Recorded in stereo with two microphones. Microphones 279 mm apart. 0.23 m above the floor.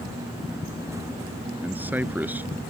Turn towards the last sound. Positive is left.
turn(degrees=-5)  # may be behind; listen again after turning